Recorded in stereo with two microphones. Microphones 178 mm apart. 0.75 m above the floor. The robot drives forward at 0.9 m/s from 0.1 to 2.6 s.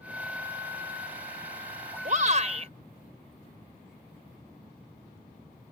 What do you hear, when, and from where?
2.0 s a shout: 50° right (ahead or behind); by 2.7 s 45° right (ahead or behind)